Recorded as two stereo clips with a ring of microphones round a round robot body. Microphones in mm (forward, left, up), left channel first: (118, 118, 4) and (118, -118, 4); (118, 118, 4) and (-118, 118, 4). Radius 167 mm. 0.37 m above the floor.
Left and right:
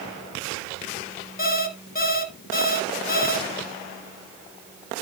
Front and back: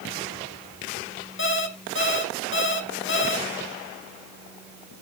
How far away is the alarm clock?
About 1.9 m.